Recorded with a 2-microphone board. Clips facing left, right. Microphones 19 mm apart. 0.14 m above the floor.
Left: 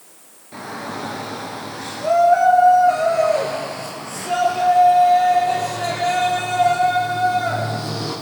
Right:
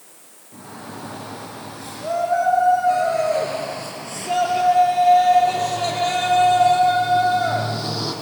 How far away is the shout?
About 2.5 m.